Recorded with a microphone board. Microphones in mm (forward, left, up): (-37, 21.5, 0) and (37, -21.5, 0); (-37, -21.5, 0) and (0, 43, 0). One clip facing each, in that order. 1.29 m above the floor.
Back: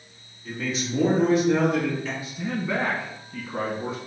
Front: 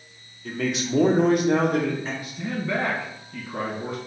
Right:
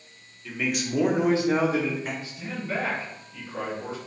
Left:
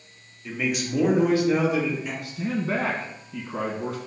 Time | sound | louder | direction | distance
0.5 | a man speaking | front 3 dB, left 1 dB | 15° right | 0.9 m
2.2 | a man speaking | even, left 6 dB | 60° left | 1.1 m